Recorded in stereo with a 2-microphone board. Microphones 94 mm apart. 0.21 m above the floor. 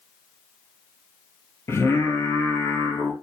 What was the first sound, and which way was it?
Singing, 25° left (ahead or behind).